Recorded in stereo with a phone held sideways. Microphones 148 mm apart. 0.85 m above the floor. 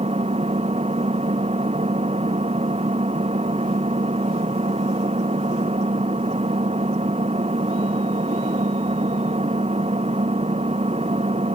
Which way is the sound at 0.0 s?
50° right (ahead or behind).